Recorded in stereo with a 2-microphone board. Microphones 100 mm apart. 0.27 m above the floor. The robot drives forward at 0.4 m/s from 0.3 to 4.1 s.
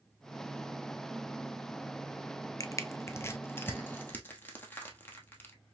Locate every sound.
2.6 s crushing: 35° left (ahead or behind), 0.6 m; by 5.5 s 20° left (ahead or behind), 1.2 m